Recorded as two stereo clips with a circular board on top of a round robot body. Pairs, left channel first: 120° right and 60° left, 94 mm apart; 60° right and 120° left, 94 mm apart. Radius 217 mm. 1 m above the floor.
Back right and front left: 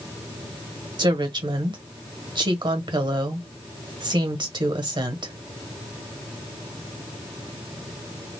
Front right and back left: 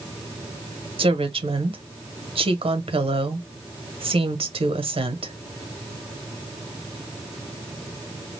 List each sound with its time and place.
1.0 s a woman speaking: 95° left, 1.5 m